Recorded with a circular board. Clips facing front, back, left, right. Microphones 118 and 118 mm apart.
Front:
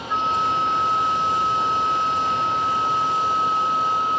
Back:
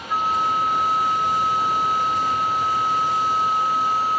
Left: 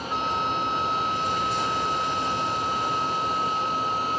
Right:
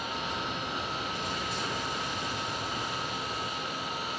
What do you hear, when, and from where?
0.1 s a flute: 100° left